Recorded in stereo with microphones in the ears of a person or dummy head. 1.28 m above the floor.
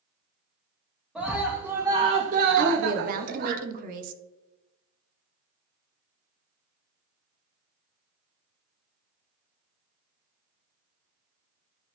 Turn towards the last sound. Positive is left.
turn(degrees=-50)  # may be behind; listen again after turning